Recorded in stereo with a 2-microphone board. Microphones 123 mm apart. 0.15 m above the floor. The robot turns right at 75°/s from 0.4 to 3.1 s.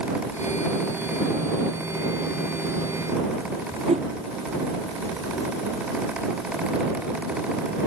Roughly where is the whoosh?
Right.